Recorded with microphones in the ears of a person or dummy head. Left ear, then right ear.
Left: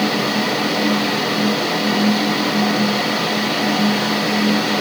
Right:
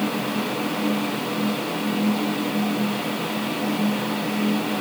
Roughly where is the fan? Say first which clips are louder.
Left 7 dB; left.